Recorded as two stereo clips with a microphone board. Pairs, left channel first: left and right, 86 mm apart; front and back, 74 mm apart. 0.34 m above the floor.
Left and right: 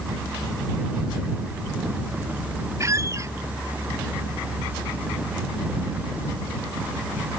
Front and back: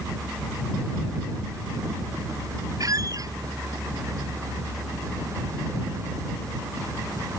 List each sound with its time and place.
2.8 s a squeak: 145° right